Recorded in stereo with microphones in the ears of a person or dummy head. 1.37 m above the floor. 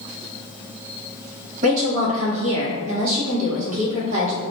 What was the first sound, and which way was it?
A woman speaking, 40° right (ahead or behind).